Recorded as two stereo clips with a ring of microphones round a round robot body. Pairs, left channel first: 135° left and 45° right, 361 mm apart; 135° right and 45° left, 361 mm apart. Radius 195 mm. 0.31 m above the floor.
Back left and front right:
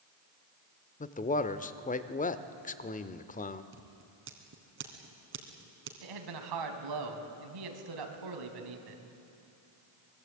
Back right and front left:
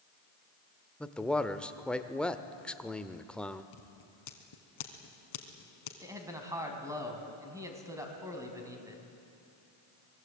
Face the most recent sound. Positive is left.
turn(degrees=-35)